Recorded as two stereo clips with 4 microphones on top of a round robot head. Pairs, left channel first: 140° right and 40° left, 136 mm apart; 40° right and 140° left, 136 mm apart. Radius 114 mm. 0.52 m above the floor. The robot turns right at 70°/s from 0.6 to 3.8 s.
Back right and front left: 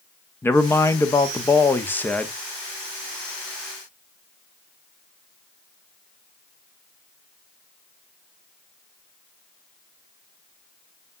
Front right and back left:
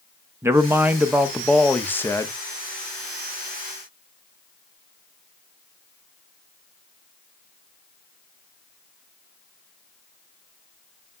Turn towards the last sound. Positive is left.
turn(degrees=40)